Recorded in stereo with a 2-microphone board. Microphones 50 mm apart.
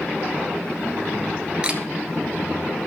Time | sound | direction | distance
1.6 | a camera shutter | 20° right (ahead or behind) | 1.6 m